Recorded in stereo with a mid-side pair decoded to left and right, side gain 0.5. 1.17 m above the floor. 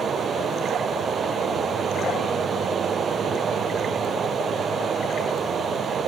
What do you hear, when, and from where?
0.0 s running water: 45° right